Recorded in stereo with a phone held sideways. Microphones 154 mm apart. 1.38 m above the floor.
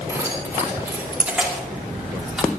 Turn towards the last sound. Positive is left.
turn(degrees=0)  # may be behind; listen again after turning